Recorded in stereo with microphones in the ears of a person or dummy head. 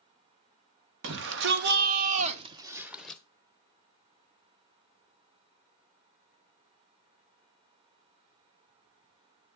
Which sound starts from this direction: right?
A shout, at 1.0 s.